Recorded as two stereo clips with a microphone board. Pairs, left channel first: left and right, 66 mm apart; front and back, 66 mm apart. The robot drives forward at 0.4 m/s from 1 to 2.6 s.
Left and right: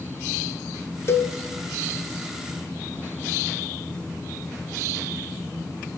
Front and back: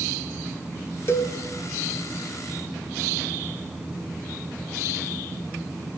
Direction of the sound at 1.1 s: 40° left.